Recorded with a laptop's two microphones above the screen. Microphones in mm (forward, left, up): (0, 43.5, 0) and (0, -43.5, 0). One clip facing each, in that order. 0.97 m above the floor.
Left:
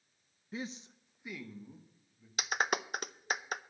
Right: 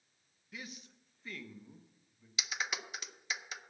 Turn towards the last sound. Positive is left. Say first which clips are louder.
# left 7 dB
turn(degrees=50)  # may be behind; listen again after turning